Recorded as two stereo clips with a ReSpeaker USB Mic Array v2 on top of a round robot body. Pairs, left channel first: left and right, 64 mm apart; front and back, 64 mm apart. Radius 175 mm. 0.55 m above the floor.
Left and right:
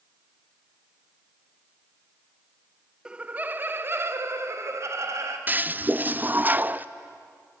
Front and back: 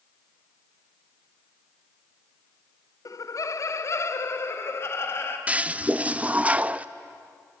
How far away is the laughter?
About 1.2 m.